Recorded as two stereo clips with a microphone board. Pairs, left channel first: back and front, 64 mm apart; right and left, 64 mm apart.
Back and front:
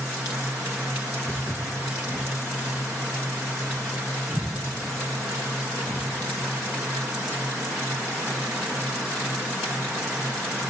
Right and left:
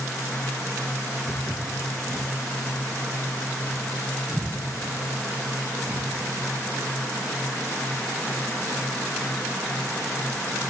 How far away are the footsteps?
About 2 m.